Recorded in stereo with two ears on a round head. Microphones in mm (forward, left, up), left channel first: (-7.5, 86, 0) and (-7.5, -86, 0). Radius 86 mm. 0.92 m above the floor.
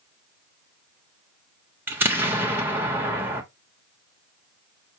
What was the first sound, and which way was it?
An explosion, 10° right (ahead or behind).